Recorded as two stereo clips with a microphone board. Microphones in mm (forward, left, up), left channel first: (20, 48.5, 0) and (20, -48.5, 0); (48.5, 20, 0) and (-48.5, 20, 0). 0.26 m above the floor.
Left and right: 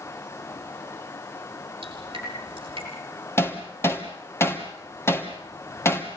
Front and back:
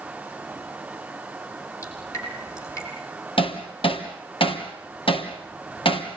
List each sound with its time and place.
1.8 s dripping: 55° right, 7 m
3.4 s hammering: 25° left, 3 m